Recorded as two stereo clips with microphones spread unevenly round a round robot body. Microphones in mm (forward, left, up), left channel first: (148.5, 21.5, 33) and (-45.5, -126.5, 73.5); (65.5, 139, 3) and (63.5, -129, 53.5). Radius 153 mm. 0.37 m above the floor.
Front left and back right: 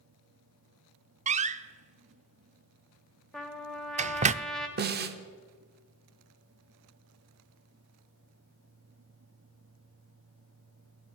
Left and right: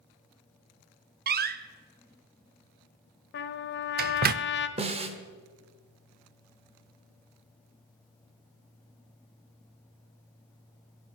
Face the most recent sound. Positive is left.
turn(degrees=-160)